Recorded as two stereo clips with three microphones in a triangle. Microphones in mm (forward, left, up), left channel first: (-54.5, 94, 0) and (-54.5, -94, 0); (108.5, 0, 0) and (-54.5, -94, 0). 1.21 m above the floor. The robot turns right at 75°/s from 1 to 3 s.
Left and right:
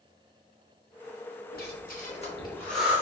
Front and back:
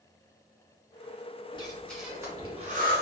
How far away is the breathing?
About 0.8 m.